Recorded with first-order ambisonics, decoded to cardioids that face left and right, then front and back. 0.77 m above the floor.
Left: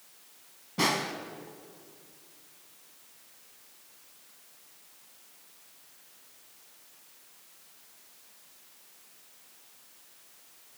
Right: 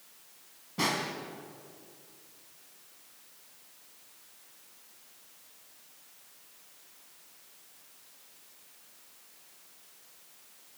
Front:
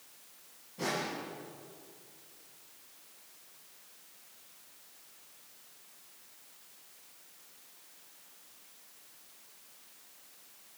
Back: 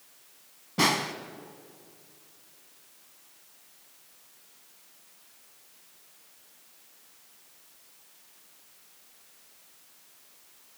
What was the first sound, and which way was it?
A snare drum, 170° left.